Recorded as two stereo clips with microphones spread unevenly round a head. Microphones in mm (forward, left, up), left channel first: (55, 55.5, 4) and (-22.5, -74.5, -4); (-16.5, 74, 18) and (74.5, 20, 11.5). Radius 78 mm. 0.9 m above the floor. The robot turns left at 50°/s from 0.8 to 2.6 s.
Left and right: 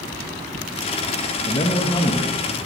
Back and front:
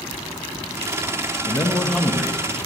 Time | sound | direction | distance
1.5 | a man speaking | 100° left | 0.6 m